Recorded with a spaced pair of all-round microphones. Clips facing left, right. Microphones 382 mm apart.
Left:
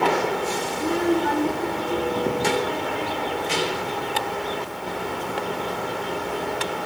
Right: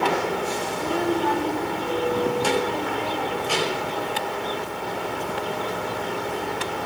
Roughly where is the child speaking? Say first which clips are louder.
Left 3 dB; left.